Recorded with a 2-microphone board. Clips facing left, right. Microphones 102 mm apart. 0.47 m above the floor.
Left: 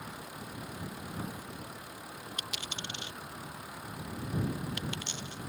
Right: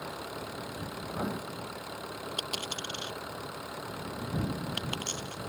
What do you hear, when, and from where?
0.0 s an engine running: 80° right
1.1 s writing: 70° right (ahead or behind)
2.4 s a dropped coin: 50° right (ahead or behind)